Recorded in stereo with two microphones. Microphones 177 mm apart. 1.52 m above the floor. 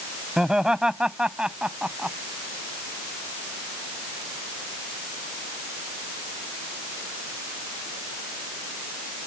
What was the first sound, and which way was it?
Laughter, 5° right (ahead or behind).